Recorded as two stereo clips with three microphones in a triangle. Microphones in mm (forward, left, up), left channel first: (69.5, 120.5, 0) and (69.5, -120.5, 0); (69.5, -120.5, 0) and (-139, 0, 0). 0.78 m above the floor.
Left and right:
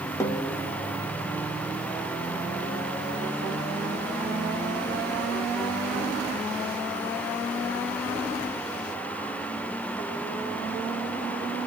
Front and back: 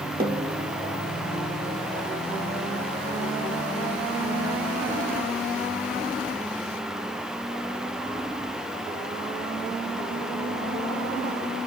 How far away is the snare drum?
About 0.6 m.